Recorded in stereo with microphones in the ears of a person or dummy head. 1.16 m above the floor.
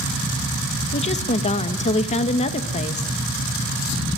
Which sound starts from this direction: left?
A woman speaking, at 0.9 s.